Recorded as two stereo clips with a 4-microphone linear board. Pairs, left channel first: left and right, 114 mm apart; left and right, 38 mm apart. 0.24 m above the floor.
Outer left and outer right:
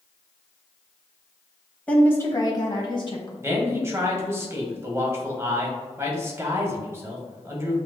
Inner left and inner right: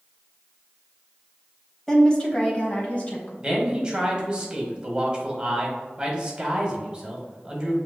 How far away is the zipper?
I don't hear a zipper.